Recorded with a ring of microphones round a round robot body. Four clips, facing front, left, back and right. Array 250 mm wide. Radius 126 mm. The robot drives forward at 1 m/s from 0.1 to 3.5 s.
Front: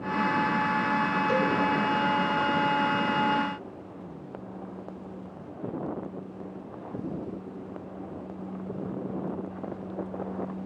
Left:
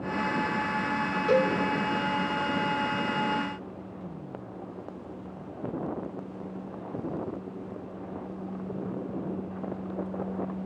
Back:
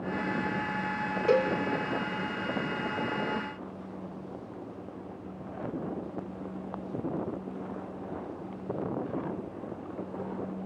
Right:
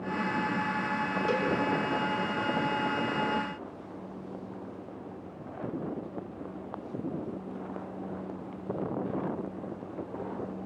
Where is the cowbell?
170° left, 5.5 m.